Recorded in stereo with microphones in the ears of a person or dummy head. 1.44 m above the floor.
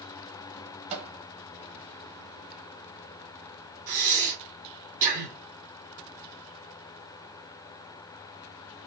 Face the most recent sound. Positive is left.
turn(degrees=-40)  # may be behind; listen again after turning